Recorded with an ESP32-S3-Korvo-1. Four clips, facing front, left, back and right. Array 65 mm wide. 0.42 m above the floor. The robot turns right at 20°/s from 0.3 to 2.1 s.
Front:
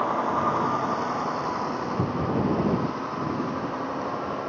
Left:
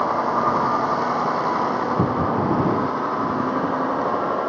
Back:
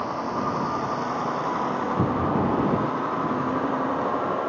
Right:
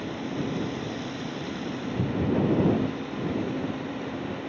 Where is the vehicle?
75° left; by 4.5 s 110° left.